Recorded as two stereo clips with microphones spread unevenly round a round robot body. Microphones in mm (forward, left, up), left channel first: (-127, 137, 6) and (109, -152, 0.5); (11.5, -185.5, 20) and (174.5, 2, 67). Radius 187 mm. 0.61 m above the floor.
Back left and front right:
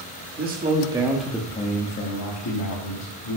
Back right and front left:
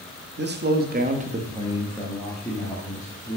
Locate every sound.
0.4 s a man speaking: 5° left, 1.4 m; by 3.4 s 165° left, 2.0 m